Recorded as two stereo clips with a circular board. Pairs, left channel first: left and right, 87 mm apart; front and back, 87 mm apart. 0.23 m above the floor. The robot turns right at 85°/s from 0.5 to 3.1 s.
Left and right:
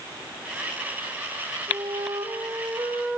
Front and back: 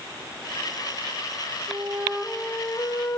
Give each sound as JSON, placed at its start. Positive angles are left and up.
{"t": 1.7, "sound": "a flute", "azimuth_deg": -140, "distance_m": 1.8}